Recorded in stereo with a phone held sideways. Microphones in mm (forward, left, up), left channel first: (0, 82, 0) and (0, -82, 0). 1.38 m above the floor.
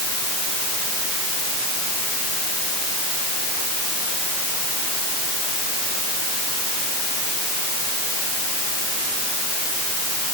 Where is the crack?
No crack in this recording.